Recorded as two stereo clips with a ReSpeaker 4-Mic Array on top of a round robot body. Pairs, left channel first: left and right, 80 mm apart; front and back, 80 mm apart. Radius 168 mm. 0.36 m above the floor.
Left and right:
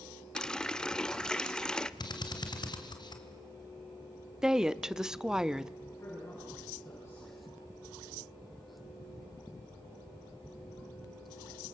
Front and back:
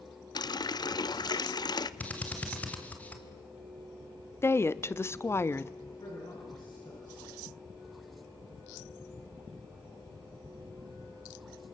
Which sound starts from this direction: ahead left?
A man speaking, at 5.8 s.